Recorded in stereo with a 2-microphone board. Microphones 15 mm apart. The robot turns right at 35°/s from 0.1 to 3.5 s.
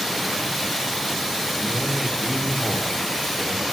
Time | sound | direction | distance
1.5 | a man speaking | 55° right | 1.7 m